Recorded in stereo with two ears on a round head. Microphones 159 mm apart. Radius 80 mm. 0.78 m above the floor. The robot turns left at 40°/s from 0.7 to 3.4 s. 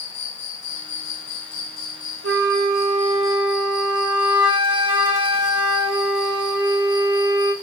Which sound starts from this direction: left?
An insect, at 0.0 s.